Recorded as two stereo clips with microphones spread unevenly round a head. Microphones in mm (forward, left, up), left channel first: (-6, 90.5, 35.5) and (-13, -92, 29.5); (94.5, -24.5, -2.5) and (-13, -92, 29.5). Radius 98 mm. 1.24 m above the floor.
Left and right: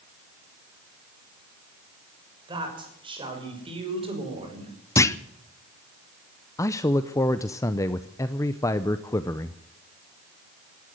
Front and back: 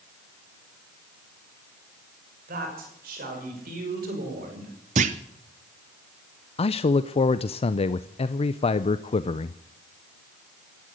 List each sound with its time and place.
2.5 s a woman speaking: 160° right, 6 m; by 4.8 s 150° right, 4.5 m
5.0 s a clunk: 165° left, 0.7 m
6.6 s a man speaking: 15° left, 0.6 m